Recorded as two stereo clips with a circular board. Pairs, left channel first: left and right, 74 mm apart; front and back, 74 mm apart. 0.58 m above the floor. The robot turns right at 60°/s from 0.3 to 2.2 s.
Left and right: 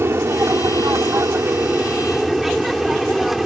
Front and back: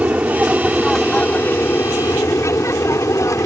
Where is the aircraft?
120° right; by 3.5 s 5° right.